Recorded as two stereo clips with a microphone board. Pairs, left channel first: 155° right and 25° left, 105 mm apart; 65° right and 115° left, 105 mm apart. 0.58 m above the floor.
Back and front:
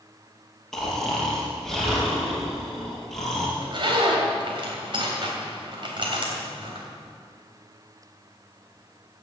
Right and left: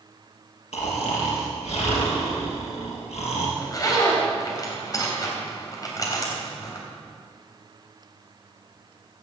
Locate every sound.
0.7 s snoring: 70° right, 4 m
3.6 s a zipper: 15° right, 3 m